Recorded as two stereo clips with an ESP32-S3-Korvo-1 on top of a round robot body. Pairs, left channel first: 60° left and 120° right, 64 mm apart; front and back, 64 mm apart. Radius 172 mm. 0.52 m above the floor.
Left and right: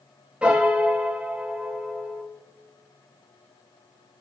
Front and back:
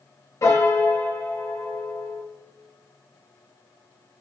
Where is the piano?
45° right, 1.9 m.